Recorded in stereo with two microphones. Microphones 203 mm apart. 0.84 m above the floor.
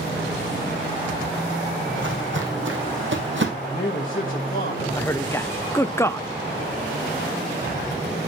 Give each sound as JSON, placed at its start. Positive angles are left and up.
{"t": 1.9, "sound": "footsteps", "side_deg": -70, "distance_m": 2.5}
{"t": 3.6, "sound": "a man speaking", "side_deg": 45, "distance_m": 1.2}
{"t": 5.0, "sound": "a man speaking", "side_deg": 15, "distance_m": 0.5}